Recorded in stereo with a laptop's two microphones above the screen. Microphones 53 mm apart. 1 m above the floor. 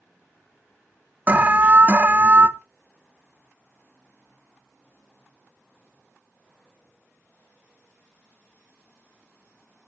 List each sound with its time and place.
1.3 s an alarm: 30° right (ahead or behind), 0.7 m